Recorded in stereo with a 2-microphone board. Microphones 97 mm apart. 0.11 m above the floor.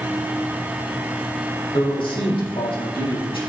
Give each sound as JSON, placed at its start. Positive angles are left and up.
{"t": 1.7, "sound": "a man speaking", "side_deg": 70, "distance_m": 4.0}